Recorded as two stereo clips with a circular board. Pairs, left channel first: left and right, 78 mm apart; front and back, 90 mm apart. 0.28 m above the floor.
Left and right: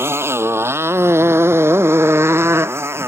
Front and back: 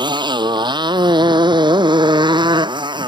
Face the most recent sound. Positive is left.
turn(degrees=-145)